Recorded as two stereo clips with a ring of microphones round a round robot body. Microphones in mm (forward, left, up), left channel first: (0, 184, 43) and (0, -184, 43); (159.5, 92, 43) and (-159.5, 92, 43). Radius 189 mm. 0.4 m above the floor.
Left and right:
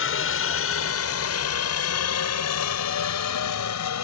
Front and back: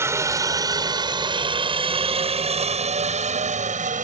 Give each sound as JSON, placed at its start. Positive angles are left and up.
{"t": 0.0, "sound": "a helicopter", "azimuth_deg": 105}